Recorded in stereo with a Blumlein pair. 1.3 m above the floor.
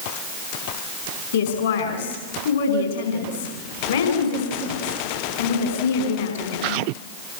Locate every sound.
1.3 s a woman speaking: 60° left, 5 m